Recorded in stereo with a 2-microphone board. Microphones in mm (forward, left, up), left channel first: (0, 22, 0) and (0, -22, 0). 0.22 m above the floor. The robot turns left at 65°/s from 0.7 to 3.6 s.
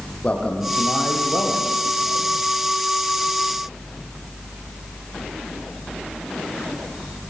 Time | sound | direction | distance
0.2 | a man speaking | 150° left | 8.5 m